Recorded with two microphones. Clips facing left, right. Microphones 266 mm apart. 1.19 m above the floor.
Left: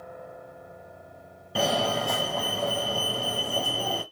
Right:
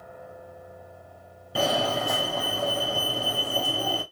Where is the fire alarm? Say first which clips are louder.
Even; centre (ahead or behind), 0.9 m.